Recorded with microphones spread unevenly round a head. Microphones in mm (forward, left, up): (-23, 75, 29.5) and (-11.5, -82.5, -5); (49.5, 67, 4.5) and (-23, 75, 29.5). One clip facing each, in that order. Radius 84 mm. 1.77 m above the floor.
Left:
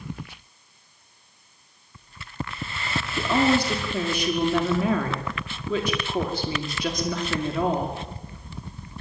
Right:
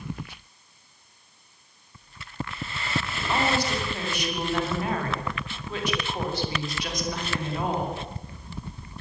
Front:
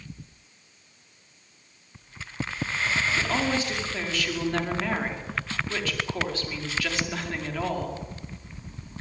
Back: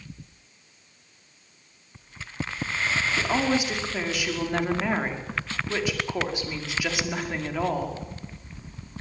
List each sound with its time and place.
3.2 s a woman speaking: 100° left, 5.5 m